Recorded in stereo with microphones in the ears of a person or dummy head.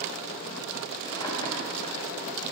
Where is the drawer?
25° left (ahead or behind), 1.3 m.